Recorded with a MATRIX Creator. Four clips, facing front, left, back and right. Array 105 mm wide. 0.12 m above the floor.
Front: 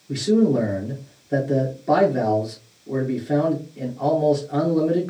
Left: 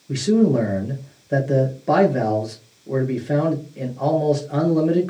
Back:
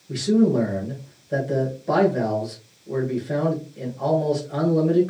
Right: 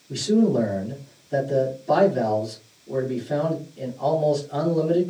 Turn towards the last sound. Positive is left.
turn(degrees=80)